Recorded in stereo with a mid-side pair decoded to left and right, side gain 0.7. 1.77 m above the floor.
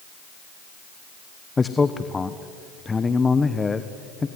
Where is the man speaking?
20° left, 1.1 m.